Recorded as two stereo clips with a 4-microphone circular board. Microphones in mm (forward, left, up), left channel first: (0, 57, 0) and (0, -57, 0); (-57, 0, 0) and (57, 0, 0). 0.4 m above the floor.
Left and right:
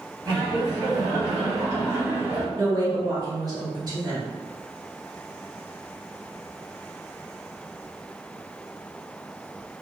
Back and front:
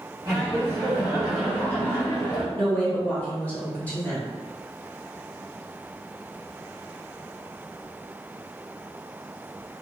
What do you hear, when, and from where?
0.2 s laughter: 40° right, 1.7 m; by 2.5 s 150° right, 1.6 m
2.5 s a woman speaking: 115° right, 1.5 m